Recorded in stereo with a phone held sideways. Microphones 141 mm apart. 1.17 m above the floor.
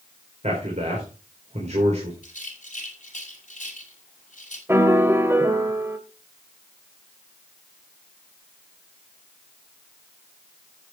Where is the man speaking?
50° right (ahead or behind), 4 m.